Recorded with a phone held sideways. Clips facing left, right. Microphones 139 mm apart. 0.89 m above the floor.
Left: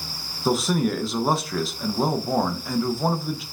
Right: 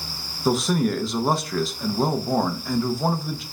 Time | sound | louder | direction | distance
0.5 | a man speaking | right 1 dB | centre (ahead or behind) | 0.5 m